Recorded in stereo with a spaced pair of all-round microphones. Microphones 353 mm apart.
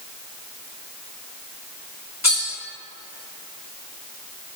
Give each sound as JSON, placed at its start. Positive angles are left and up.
{"t": 2.2, "sound": "cutlery clinking", "side_deg": 50, "distance_m": 1.7}